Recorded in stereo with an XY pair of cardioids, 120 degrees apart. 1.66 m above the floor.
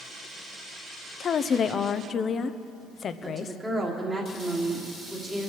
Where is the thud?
I don't hear a thud.